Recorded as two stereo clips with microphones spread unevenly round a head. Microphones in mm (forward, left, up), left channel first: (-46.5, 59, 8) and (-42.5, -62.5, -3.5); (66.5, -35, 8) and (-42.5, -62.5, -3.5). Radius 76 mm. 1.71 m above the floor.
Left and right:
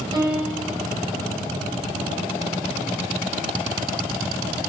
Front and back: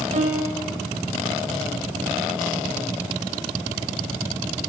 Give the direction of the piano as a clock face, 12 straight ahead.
5 o'clock.